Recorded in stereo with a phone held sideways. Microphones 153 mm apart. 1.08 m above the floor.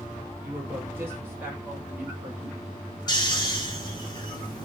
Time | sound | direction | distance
0.4 | a woman speaking | 15° right (ahead or behind) | 5 m
3.1 | snoring | 30° left (ahead or behind) | 2 m